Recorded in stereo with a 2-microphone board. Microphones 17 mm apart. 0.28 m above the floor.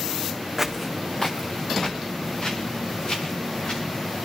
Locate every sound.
0.6 s footsteps: 10° right (ahead or behind), 0.9 m; by 3.8 s 50° left (ahead or behind), 4.5 m